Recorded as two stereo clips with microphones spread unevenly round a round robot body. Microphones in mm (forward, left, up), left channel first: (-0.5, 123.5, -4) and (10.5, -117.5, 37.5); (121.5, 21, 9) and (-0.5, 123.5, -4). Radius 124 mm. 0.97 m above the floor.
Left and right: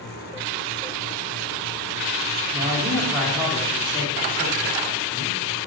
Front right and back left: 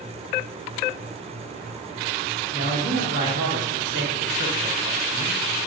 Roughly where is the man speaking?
Behind.